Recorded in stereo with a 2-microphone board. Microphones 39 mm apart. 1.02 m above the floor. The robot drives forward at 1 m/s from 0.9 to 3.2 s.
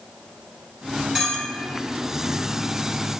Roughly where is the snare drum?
No snare drum in this recording.